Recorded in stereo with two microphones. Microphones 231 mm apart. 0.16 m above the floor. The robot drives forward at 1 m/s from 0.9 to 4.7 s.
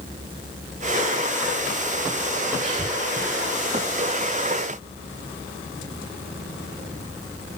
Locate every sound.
2.6 s breathing: 30° right (ahead or behind), 4.5 m